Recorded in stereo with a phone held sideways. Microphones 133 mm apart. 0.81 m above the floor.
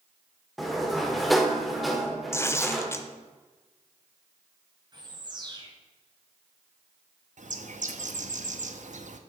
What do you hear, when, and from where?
0.6 s a sliding door: centre (ahead or behind), 1.0 m
2.3 s tearing paper: 20° left (ahead or behind), 0.6 m
4.9 s a bird: 35° right (ahead or behind), 2 m
7.4 s a bird: 65° right (ahead or behind), 0.7 m